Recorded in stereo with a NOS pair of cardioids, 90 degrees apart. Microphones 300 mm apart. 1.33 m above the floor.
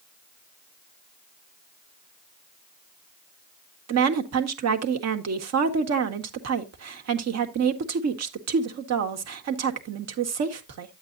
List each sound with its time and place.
3.9 s a woman speaking: 60° right, 1.7 m